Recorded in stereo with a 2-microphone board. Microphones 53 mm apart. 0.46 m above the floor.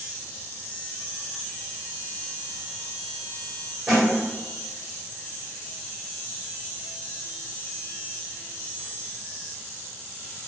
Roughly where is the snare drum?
Centre.